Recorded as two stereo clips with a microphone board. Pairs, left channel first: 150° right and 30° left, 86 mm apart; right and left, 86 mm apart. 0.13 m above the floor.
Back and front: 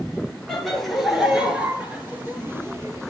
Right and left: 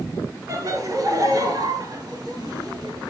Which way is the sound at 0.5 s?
125° left.